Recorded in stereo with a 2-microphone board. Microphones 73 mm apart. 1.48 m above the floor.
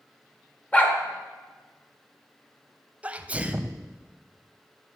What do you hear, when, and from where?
0.7 s a dog barking: 20° left (ahead or behind), 0.9 m
3.0 s a sneeze: 20° right (ahead or behind), 0.5 m